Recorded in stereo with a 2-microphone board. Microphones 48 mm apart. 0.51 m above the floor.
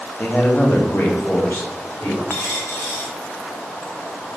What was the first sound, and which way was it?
A man speaking, 35° left (ahead or behind).